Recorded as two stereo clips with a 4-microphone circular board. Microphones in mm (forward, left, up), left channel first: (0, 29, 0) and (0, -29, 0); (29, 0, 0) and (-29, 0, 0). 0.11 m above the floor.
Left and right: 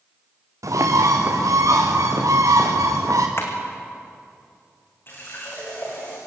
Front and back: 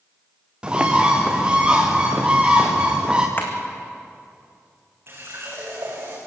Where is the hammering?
50° left, 3 m.